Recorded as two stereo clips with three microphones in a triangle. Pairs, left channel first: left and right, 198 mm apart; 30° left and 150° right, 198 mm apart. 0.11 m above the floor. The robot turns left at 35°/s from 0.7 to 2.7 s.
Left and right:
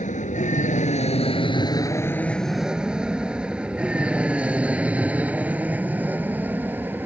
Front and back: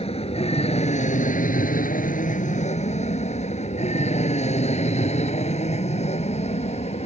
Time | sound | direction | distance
0.0 | an aircraft | 70° left | ?